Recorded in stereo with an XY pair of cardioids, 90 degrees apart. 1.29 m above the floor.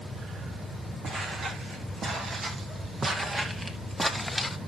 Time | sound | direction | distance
1.0 | footsteps | 65° right | 4 m